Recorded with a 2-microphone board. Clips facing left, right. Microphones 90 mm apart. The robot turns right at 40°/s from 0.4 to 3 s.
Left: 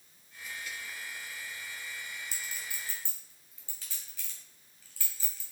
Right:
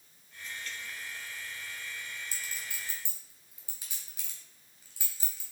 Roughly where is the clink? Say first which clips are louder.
Even; right.